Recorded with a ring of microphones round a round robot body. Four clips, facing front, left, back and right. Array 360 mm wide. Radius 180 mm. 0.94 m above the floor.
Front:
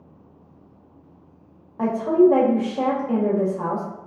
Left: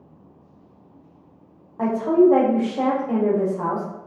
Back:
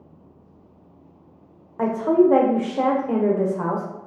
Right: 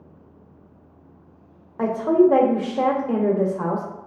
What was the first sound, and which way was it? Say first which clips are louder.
A woman speaking: even, front 1 dB; 135° right.